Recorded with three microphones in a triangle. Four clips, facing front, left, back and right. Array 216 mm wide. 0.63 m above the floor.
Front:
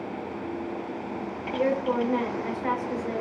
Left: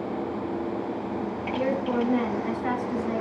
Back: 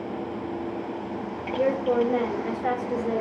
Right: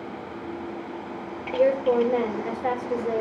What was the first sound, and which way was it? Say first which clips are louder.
A woman speaking: right 7 dB, back 2 dB; 110° right.